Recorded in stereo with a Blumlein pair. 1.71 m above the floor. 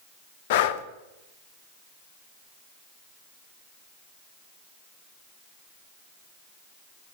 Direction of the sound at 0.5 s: 50° left.